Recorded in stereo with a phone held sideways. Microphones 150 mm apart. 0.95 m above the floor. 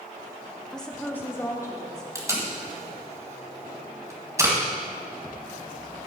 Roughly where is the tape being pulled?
Right.